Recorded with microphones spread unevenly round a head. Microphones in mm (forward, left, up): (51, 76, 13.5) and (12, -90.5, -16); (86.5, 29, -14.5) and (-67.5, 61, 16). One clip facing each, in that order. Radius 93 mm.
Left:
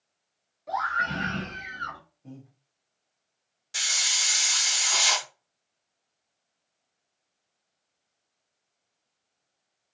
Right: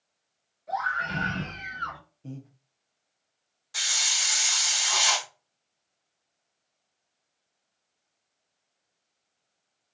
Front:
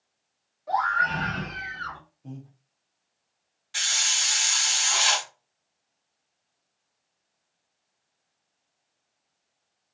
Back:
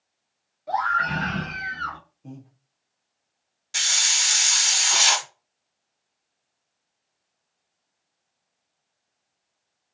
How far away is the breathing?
About 0.6 m.